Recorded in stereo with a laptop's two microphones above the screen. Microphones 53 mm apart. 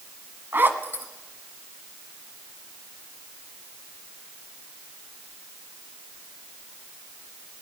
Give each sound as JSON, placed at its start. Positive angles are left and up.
{"t": 0.5, "sound": "a zipper", "side_deg": -45, "distance_m": 1.4}